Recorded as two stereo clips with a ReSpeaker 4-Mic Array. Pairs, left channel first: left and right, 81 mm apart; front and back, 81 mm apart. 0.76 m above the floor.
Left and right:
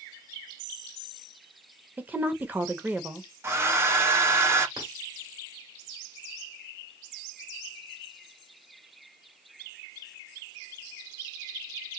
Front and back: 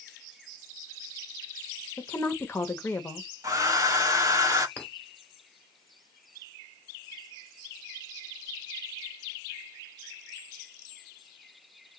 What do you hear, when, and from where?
2.0 s a woman speaking: 40° right, 0.7 m
3.4 s a hair dryer: 140° right, 0.9 m
4.8 s a clink: 70° right, 1.5 m